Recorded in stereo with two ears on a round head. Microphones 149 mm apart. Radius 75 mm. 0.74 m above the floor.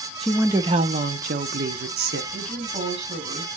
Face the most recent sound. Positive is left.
turn(degrees=-40)  # may be behind; listen again after turning